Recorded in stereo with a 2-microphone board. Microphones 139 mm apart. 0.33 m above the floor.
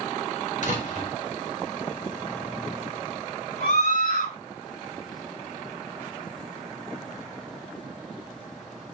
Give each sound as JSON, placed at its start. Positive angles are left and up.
{"t": 0.6, "sound": "a door slam", "side_deg": 60, "distance_m": 4.5}
{"t": 3.6, "sound": "a scream", "side_deg": 65, "distance_m": 4.5}